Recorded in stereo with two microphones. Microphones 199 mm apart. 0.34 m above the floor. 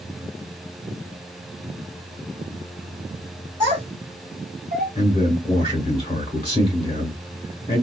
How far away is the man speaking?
About 1.2 m.